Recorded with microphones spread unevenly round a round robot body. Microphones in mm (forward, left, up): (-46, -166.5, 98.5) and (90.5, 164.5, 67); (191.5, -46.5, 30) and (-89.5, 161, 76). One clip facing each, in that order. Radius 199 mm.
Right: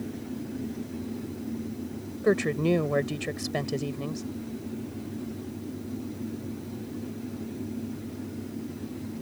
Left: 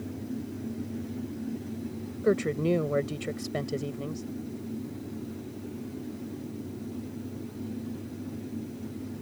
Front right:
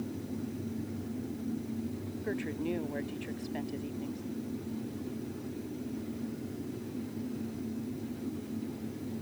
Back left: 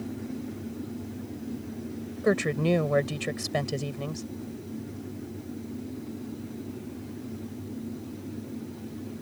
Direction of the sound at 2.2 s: 165° left.